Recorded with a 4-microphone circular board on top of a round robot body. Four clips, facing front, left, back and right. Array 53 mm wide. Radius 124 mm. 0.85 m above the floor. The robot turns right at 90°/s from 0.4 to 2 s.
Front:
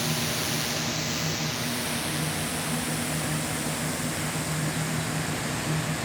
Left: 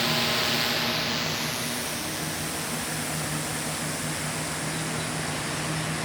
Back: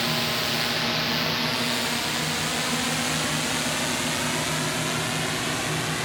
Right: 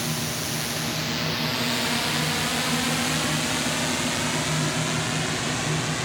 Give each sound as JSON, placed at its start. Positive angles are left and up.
{"t": 0.0, "sound": "a drone", "azimuth_deg": 140}